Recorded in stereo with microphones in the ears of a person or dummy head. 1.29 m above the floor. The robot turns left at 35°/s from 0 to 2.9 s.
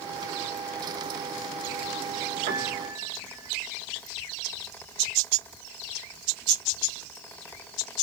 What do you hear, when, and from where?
2.5 s a piano: 45° right (ahead or behind), 1.1 m; by 3.5 s 25° right (ahead or behind), 1.1 m